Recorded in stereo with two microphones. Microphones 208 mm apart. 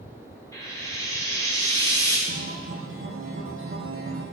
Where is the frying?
15° left (ahead or behind), 2 m.